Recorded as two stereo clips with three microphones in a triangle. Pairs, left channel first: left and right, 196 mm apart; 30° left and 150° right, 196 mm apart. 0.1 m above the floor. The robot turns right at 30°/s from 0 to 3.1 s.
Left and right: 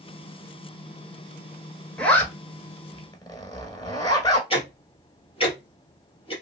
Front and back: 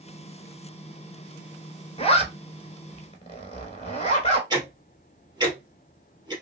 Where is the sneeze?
No sneeze in this recording.